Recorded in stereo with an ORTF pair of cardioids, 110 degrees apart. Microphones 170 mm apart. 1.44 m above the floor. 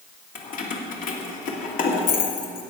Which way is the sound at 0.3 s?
60° left.